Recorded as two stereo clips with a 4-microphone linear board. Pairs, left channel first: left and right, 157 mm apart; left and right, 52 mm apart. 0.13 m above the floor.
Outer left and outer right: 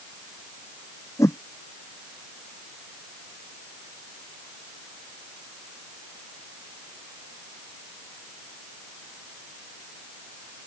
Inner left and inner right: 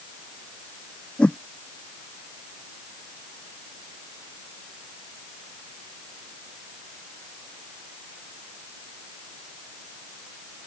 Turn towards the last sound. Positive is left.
turn(degrees=20)  # may be behind; listen again after turning